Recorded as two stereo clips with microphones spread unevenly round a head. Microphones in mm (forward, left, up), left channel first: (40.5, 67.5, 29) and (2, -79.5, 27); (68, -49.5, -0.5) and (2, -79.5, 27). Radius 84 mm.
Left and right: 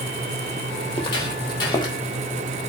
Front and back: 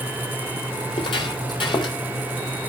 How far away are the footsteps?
About 3 m.